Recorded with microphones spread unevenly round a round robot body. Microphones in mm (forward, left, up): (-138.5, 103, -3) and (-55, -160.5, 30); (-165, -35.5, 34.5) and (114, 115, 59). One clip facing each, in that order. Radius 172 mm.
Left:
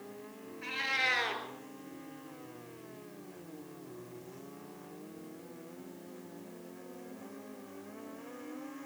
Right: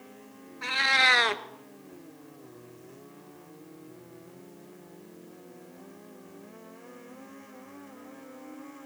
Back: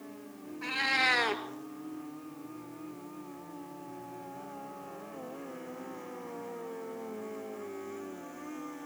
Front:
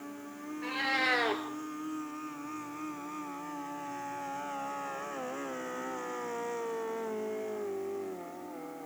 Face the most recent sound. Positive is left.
turn(degrees=-75)